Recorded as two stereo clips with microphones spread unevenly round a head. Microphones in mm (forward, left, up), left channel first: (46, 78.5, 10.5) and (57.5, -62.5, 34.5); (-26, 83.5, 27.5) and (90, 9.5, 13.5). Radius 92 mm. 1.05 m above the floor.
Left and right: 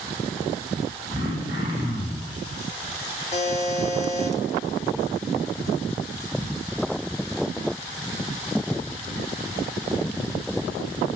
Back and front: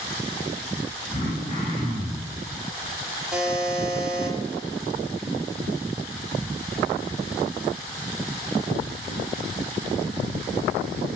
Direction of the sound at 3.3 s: 50° left.